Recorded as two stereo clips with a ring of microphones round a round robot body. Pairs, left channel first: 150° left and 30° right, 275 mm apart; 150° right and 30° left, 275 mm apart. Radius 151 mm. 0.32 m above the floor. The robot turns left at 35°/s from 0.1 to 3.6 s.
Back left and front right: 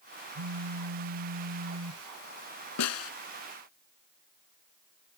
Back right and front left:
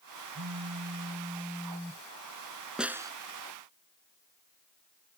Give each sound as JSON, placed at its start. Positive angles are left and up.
{"t": 0.3, "sound": "a phone buzzing", "azimuth_deg": -15}
{"t": 2.8, "sound": "a snare drum", "azimuth_deg": 120}